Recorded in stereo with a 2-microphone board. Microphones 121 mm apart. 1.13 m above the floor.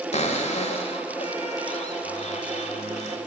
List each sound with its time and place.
0.1 s a cupboard door: 65° left (ahead or behind), 1.9 m